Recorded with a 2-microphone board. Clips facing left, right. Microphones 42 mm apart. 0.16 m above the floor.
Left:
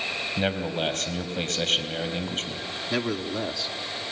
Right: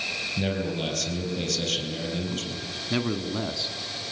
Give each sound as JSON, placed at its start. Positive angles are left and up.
{"t": 0.4, "sound": "a man speaking", "side_deg": 35, "distance_m": 4.0}
{"t": 2.9, "sound": "a man speaking", "side_deg": 0, "distance_m": 1.1}